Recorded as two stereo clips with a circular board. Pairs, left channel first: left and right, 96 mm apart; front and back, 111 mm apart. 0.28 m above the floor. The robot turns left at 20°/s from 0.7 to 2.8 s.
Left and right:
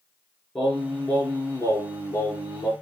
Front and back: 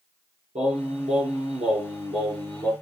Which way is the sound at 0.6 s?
175° left.